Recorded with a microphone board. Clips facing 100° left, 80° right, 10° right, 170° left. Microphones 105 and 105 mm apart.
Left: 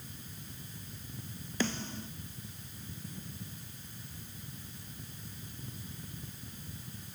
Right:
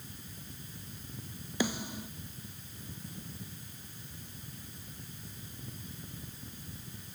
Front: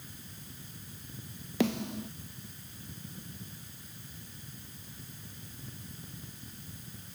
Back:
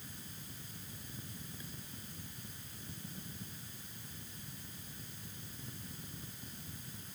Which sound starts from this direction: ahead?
A snare drum, at 1.6 s.